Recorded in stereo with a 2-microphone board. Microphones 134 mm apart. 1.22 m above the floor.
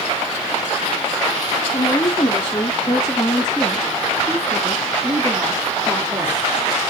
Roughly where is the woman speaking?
Left.